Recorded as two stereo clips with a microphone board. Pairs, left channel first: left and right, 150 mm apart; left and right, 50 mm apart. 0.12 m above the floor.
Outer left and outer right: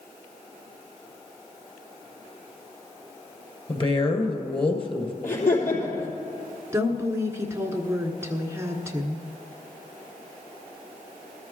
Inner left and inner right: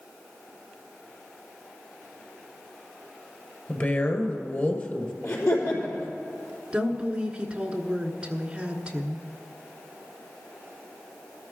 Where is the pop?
No pop in this recording.